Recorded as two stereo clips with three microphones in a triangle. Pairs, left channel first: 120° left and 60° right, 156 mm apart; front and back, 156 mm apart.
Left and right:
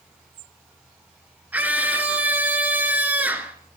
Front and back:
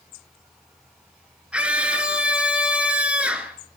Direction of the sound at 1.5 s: 115° right.